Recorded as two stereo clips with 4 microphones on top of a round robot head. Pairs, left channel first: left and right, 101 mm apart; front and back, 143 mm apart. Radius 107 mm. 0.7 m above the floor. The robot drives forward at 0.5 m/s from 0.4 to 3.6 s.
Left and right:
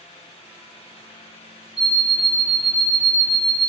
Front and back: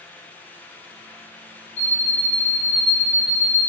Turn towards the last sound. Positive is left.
turn(degrees=75)